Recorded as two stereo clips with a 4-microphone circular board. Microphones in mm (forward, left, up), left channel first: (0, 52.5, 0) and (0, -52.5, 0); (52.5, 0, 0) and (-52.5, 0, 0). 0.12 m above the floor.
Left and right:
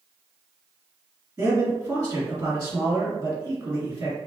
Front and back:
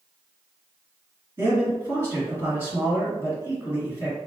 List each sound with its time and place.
1.4 s a man speaking: 135° right, 1.9 m